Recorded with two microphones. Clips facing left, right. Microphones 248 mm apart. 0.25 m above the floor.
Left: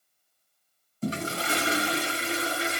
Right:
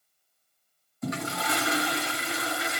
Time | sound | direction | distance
1.0 | a toilet flushing | 30° left (ahead or behind) | 1.2 m